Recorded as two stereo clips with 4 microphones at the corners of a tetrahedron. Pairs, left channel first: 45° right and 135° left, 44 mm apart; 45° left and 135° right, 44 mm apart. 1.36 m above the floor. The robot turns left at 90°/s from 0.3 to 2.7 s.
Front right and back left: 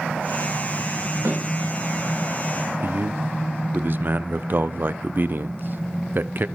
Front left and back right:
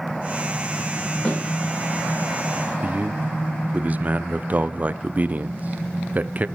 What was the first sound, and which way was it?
A snare drum, 130° left.